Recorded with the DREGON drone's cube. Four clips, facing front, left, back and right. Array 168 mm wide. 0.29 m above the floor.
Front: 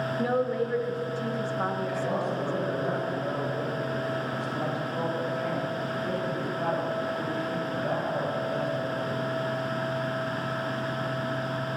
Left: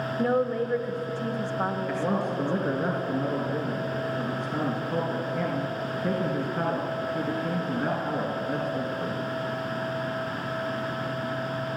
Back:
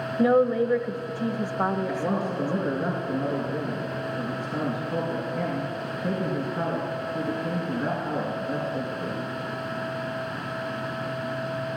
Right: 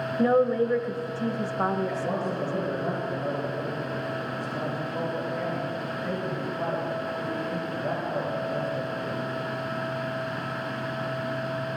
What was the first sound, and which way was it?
A woman speaking, 155° right.